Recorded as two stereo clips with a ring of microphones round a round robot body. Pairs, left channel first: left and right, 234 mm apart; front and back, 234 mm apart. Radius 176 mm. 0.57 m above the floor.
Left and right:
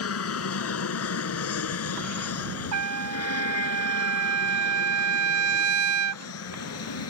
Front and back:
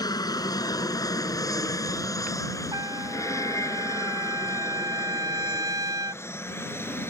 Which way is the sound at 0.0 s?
75° left.